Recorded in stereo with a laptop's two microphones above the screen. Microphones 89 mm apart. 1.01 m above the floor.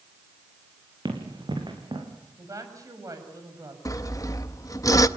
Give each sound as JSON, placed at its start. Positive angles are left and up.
{"t": 1.1, "sound": "running footsteps", "side_deg": -55, "distance_m": 5.0}
{"t": 2.4, "sound": "a woman speaking", "side_deg": -35, "distance_m": 6.0}
{"t": 3.9, "sound": "sawing", "side_deg": 35, "distance_m": 0.6}